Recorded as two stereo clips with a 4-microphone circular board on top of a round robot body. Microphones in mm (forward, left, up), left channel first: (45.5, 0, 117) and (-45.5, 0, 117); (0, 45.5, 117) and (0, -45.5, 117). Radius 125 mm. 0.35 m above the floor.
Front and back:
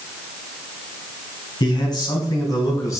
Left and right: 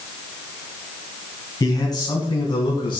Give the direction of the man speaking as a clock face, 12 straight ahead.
11 o'clock.